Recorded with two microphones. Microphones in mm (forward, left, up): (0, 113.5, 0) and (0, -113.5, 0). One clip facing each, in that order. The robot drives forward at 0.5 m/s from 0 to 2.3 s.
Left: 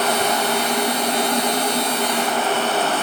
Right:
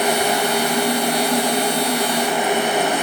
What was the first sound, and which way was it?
Only background noise.